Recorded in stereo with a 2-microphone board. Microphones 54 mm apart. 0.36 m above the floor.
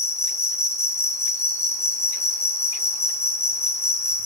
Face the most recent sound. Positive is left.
turn(degrees=55)  # may be behind; listen again after turning